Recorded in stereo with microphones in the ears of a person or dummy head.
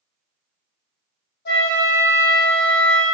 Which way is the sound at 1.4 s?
55° left (ahead or behind).